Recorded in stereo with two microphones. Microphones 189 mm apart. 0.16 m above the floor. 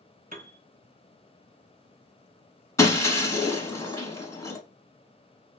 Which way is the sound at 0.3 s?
45° right (ahead or behind).